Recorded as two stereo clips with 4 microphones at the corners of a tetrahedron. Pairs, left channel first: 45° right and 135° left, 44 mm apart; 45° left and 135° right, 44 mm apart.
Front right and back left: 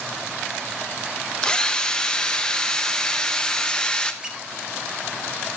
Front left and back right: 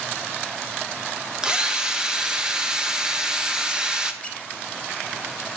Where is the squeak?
75° left, 0.8 m.